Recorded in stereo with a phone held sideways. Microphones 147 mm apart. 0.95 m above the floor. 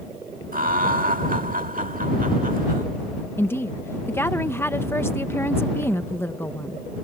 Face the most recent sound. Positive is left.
turn(degrees=15)  # may be behind; listen again after turning